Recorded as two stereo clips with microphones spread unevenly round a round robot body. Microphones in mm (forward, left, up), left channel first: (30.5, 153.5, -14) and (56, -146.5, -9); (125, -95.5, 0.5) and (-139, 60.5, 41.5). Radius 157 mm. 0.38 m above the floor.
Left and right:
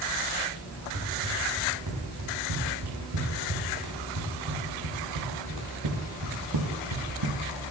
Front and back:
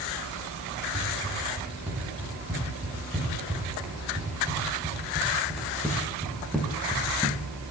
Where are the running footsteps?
130° right, 9.5 m; by 7.4 s 115° right, 5 m.